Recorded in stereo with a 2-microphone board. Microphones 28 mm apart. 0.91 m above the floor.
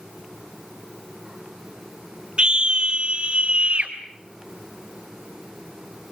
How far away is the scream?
About 3 m.